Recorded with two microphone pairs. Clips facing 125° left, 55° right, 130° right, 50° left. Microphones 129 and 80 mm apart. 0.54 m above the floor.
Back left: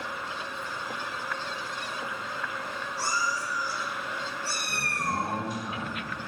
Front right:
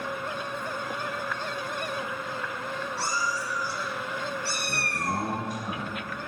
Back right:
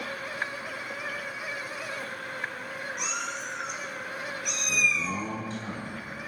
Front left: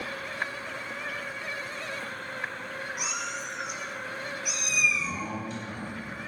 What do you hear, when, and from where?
3.0 s a cat meowing: 35° right, 3.5 m
4.7 s a man speaking: 85° right, 5 m